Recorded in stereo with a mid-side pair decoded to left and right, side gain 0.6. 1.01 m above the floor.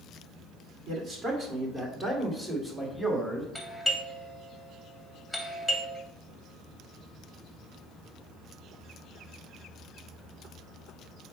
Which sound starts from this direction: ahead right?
A man speaking, at 0.9 s.